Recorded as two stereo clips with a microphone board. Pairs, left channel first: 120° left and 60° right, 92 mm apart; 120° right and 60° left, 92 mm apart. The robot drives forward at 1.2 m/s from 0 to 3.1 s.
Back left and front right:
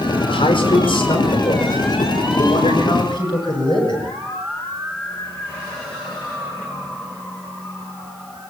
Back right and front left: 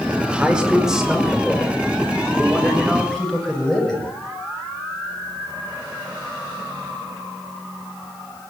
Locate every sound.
0.3 s a man speaking: 140° left, 5 m; by 4.1 s 155° left, 7.5 m